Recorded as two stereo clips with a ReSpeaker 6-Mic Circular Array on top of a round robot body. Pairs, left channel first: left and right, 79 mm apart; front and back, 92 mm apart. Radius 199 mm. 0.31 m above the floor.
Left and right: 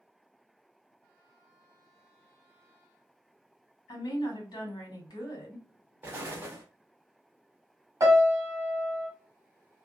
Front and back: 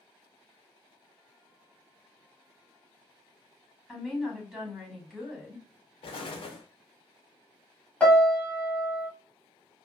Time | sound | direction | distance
3.9 | a woman speaking | 95° left | 1.9 m
6.0 | an explosion | 25° right | 0.5 m
8.0 | a piano | 75° right | 1.6 m